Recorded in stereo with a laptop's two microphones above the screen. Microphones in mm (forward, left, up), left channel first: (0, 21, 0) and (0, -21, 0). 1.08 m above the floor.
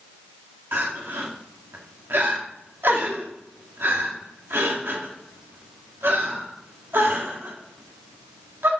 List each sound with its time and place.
0.7 s crying: 65° right (ahead or behind), 1.6 m